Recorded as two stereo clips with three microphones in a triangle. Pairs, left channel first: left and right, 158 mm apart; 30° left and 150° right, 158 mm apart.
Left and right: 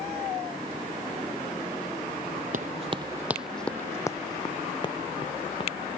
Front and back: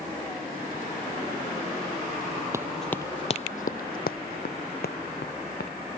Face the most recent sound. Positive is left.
turn(degrees=35)